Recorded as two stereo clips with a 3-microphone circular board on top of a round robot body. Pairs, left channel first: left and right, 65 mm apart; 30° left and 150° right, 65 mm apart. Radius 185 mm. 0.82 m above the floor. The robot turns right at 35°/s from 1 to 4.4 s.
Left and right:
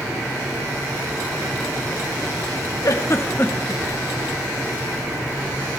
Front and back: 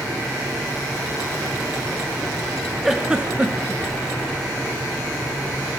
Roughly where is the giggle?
Behind left.